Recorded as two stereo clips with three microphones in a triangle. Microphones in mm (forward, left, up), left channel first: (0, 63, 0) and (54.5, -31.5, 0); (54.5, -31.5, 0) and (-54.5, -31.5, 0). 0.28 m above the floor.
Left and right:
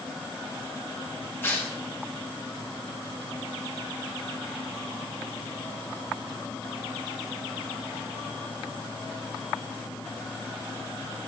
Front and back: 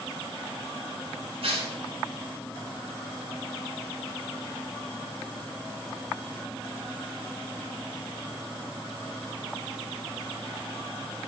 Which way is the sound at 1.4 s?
175° right.